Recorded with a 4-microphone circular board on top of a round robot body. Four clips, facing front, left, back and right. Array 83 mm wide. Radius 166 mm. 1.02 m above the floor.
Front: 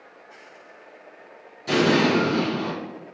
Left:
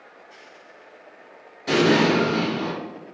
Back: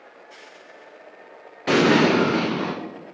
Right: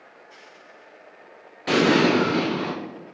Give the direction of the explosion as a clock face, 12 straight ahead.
5 o'clock.